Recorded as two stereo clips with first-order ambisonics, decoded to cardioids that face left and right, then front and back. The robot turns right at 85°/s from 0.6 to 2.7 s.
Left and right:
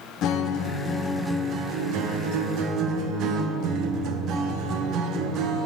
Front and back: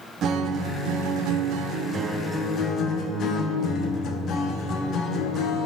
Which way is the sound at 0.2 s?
130° left.